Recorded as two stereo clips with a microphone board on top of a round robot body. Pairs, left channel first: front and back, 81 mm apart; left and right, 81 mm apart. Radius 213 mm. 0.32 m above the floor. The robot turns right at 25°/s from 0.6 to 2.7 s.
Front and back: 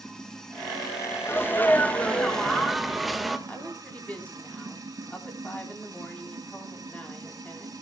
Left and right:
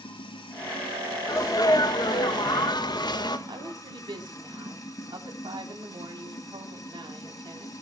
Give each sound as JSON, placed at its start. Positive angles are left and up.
{"t": 0.0, "sound": "running water", "azimuth_deg": 80, "distance_m": 3.0}
{"t": 1.3, "sound": "a sneeze", "azimuth_deg": 55, "distance_m": 2.0}
{"t": 3.5, "sound": "a woman speaking", "azimuth_deg": -75, "distance_m": 4.5}